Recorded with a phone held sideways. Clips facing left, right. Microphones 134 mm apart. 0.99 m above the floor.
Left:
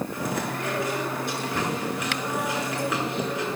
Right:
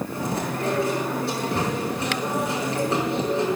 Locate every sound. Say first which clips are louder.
0.1 s chewing: right 2 dB; 35° right (ahead or behind), 5.5 m